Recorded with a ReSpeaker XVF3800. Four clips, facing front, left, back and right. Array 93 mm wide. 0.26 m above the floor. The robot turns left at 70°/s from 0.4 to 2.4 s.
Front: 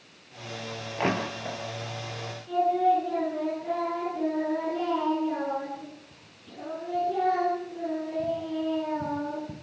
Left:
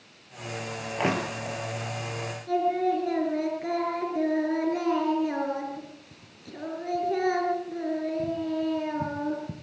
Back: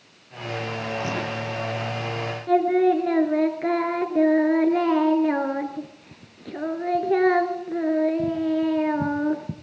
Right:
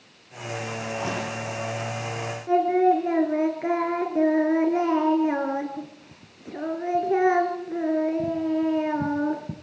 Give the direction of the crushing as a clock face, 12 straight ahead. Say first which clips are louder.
Left 5 dB, front 4 dB; 10 o'clock.